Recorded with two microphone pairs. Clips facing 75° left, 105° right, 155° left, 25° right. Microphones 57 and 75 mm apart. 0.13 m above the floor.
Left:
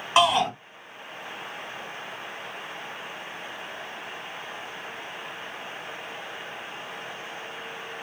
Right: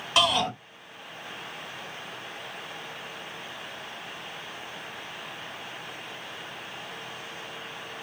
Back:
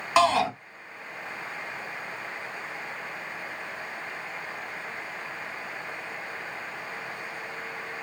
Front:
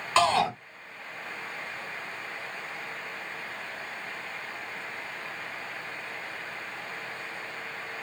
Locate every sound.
0.2 s a shout: 95° left, 1.6 m